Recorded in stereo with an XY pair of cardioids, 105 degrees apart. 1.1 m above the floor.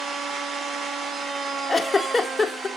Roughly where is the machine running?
Ahead right.